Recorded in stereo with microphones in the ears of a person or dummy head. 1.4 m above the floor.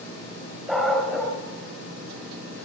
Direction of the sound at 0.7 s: Centre (ahead or behind).